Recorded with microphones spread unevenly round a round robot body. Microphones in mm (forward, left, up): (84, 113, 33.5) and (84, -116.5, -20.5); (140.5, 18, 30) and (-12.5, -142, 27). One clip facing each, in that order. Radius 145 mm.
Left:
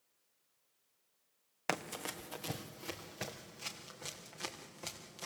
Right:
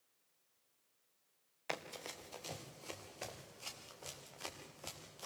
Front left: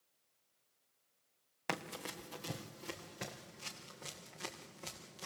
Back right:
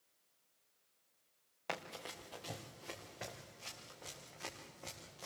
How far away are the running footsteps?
About 1.6 m.